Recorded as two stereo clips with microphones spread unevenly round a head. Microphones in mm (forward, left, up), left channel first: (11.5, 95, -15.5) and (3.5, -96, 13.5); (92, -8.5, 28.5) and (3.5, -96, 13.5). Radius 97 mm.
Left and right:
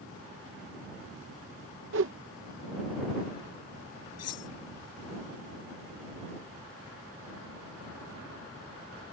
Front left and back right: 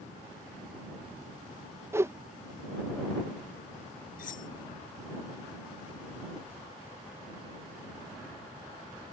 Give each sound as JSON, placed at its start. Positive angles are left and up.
{"t": 1.9, "sound": "a whoosh", "azimuth_deg": -70}
{"t": 4.2, "sound": "cutlery clinking", "azimuth_deg": 95}